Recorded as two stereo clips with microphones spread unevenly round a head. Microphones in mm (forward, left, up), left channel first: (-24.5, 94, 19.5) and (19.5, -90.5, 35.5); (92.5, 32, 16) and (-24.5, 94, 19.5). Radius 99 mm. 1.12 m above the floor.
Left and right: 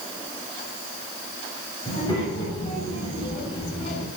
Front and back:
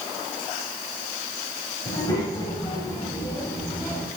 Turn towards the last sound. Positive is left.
turn(degrees=45)